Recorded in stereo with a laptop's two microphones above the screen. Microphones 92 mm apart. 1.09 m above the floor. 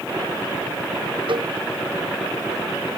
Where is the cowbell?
65° right (ahead or behind).